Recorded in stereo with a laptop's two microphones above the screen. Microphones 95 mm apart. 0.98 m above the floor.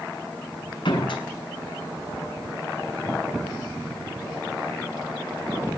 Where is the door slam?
65° left (ahead or behind), 6.5 m.